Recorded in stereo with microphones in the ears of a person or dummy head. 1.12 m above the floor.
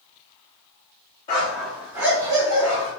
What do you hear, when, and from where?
1.3 s a dog barking: 20° left (ahead or behind), 0.6 m; by 2.9 s 20° right (ahead or behind), 1.8 m